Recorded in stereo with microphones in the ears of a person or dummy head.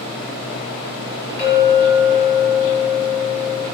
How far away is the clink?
About 1.6 m.